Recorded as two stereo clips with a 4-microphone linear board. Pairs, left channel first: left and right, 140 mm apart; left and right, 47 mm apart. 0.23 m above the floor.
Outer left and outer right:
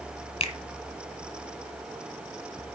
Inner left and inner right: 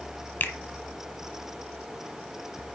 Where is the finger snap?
45° left (ahead or behind), 1.4 m.